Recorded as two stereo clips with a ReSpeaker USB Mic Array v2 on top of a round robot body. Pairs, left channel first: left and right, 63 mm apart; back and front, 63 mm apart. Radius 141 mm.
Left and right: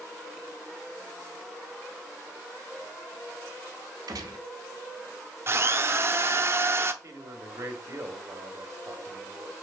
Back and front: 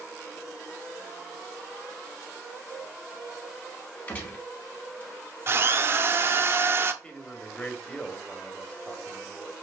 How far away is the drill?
About 0.7 m.